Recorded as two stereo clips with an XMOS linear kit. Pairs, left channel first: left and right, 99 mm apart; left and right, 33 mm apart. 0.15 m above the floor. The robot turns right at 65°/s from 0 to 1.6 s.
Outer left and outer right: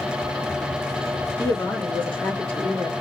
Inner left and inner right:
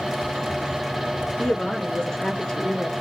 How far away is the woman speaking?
About 2 m.